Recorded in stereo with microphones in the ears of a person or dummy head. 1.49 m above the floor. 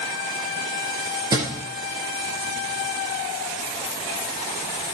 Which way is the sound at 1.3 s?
25° right (ahead or behind).